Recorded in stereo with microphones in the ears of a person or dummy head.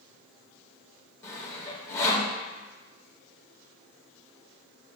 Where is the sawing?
15° left (ahead or behind), 1.3 m.